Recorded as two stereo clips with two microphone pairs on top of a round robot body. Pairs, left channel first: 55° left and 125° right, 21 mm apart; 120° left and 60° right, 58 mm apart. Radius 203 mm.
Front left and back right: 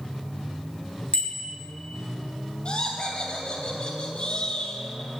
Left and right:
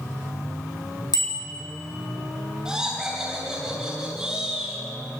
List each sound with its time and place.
1.1 s a bicycle bell: 105° left, 3 m
2.6 s laughter: 20° left, 3.5 m